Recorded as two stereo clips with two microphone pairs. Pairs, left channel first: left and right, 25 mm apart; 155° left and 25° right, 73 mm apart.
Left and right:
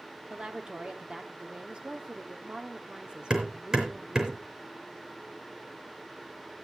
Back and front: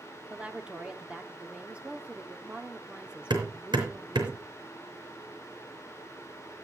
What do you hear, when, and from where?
0.3 s a woman speaking: 95° right, 1.2 m
3.3 s hammering: 35° right, 4 m